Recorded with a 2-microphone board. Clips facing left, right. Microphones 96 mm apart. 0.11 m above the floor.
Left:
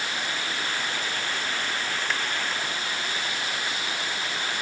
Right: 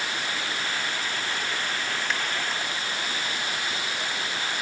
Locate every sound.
Only background noise.